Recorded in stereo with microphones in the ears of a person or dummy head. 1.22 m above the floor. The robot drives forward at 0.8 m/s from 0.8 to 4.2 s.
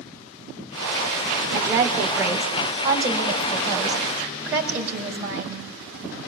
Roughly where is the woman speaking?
Centre.